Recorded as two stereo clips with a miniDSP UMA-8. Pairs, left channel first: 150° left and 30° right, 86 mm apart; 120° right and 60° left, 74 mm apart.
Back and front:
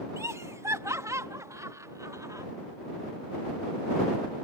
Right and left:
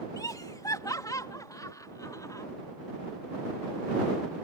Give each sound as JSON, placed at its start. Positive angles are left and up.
{"t": 0.2, "sound": "laughter", "azimuth_deg": -85}